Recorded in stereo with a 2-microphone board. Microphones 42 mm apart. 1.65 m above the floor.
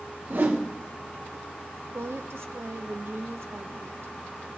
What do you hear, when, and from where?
0.3 s a whoosh: 55° right (ahead or behind), 1.5 m
1.9 s a woman speaking: 80° right, 0.7 m